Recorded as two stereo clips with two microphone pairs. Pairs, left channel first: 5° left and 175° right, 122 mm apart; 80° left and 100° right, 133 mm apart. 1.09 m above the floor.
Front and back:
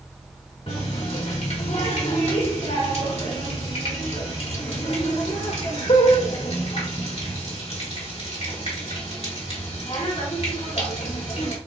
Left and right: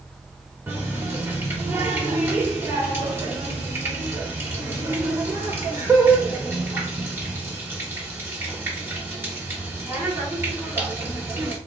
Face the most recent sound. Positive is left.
turn(degrees=-30)